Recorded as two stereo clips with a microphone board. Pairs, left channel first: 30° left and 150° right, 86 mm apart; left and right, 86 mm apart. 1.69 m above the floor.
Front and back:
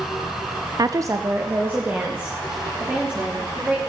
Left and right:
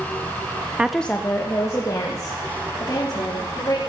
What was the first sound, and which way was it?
A woman speaking, 160° right.